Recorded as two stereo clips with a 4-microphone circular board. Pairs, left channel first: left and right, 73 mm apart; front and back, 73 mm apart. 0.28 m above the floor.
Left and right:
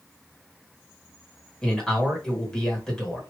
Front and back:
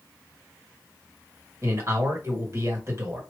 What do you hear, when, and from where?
1.6 s a man speaking: 165° left, 2.0 m